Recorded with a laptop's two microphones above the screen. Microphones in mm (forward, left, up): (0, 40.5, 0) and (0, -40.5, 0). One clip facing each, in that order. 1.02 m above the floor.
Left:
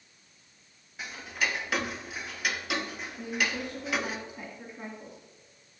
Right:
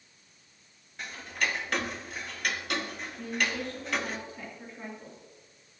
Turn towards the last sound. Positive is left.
turn(degrees=15)  # may be behind; listen again after turning